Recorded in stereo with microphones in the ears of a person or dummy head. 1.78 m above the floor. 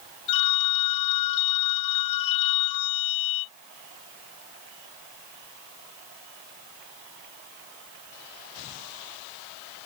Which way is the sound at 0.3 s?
40° left (ahead or behind).